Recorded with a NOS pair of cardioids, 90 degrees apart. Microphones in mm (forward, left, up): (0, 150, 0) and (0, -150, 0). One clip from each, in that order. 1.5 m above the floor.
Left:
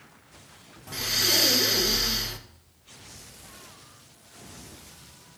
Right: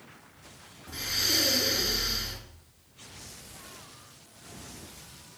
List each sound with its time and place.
0.9 s breathing: 65° left, 1.1 m